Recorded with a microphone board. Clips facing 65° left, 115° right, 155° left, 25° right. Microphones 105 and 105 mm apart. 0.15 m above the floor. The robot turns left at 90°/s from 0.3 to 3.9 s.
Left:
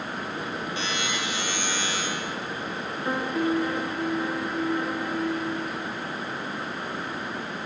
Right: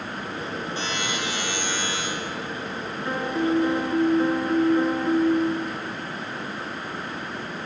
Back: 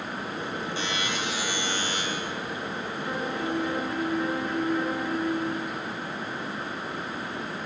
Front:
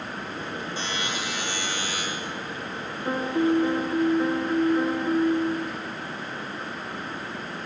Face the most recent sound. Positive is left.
turn(degrees=-80)